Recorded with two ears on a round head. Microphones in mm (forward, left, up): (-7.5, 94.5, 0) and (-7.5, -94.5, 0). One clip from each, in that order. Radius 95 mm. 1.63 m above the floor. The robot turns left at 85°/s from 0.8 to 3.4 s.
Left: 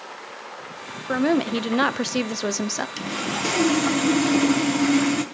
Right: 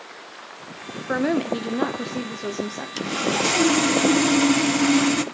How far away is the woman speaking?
About 0.8 m.